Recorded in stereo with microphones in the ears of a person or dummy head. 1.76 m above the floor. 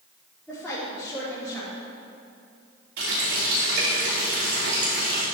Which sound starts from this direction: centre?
A woman speaking, at 0.5 s.